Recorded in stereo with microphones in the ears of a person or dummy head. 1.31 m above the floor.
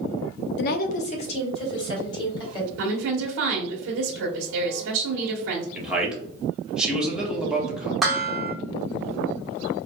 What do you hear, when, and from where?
0.6 s a woman speaking: 60° left (ahead or behind), 0.6 m; by 2.7 s 25° left (ahead or behind), 3 m
2.8 s a woman speaking: 75° right (ahead or behind), 1.2 m
5.8 s a man speaking: 5° right (ahead or behind), 1.4 m
8.0 s dishes clattering: centre (ahead or behind), 0.6 m